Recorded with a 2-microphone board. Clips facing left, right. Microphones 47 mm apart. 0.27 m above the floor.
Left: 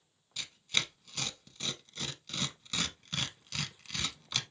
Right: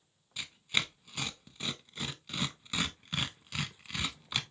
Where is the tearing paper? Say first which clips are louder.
Right 2 dB; 15° right (ahead or behind), 0.6 m.